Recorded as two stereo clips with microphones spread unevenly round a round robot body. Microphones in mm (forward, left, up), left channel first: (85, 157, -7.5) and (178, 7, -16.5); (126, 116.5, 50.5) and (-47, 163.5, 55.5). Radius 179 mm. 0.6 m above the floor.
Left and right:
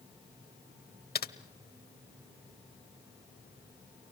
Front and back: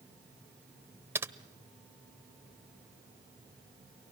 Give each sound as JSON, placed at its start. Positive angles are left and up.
{"t": 1.1, "sound": "typing on a keyboard", "azimuth_deg": 85, "distance_m": 1.0}